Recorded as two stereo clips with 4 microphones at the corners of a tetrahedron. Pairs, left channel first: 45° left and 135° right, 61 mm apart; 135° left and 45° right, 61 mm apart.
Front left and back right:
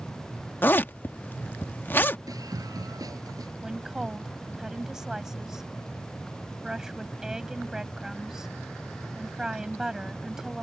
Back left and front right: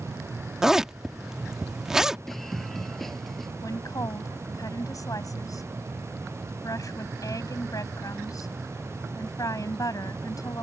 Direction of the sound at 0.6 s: 30° left.